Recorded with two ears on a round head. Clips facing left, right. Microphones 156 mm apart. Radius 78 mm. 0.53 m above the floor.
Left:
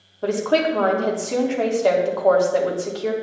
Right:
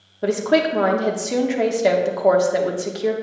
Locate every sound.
0.2 s a woman speaking: 20° right (ahead or behind), 0.8 m